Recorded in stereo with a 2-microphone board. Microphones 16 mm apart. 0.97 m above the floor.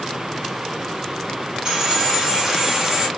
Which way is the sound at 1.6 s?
40° right (ahead or behind).